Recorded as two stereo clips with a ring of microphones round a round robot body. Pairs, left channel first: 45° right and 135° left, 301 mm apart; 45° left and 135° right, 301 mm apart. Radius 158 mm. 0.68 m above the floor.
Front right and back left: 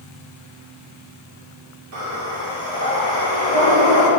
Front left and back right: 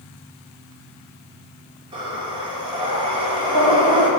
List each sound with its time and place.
1.9 s breathing: 150° left, 2.5 m